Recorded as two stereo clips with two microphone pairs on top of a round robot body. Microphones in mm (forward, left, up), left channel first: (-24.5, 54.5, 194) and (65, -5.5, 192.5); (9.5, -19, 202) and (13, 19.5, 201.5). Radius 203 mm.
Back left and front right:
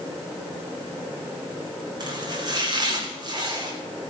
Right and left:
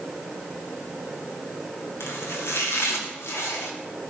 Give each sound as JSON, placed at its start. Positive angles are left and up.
{"t": 2.0, "sound": "chopping", "azimuth_deg": -85, "distance_m": 2.0}